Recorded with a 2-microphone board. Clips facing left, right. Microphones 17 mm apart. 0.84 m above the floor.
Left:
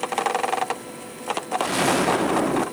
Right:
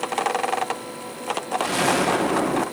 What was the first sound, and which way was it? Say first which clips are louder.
An explosion: even; centre (ahead or behind).